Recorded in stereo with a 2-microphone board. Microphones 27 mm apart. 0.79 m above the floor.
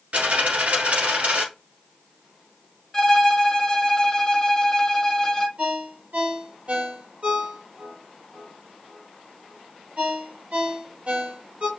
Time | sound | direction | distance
0.1 | a dropped coin | 65° right (ahead or behind) | 1.5 m
2.9 | a violin | 20° left (ahead or behind) | 0.6 m
5.6 | a ringtone | 45° right (ahead or behind) | 1.8 m